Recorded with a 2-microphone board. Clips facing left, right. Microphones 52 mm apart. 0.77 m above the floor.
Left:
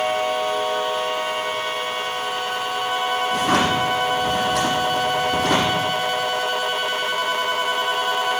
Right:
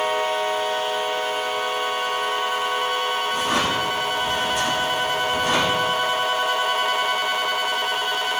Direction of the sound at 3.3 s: 65° left (ahead or behind).